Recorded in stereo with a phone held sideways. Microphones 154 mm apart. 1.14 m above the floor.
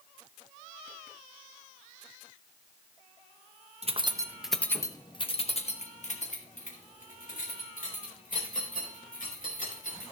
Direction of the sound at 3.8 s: 45° right (ahead or behind).